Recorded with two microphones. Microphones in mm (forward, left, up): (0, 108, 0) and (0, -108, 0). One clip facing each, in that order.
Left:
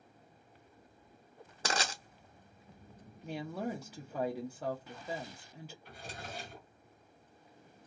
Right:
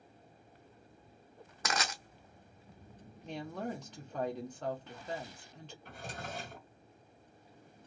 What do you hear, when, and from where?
1.6 s crushing: 30° left (ahead or behind), 0.7 m
3.2 s a woman speaking: 10° left (ahead or behind), 0.6 m
5.8 s a drawer: 50° right (ahead or behind), 1.5 m